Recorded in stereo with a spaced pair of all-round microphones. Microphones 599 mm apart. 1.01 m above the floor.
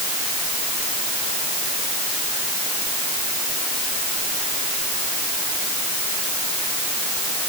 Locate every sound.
Only background noise.